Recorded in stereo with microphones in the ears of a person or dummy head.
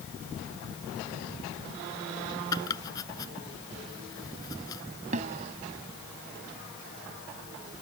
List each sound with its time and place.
2.5 s chopping: 20° left (ahead or behind)
5.1 s a snare drum: 40° right (ahead or behind)